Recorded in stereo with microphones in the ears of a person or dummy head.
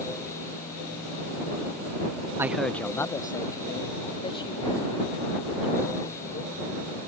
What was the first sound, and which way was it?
A man speaking, 20° right (ahead or behind).